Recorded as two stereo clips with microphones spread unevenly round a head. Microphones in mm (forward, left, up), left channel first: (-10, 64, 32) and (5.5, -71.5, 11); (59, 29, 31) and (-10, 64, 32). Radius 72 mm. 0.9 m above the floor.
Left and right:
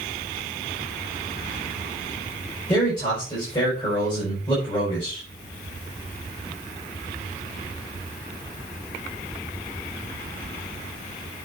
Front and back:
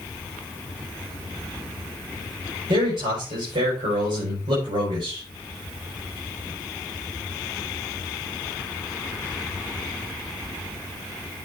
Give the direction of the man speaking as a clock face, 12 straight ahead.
7 o'clock.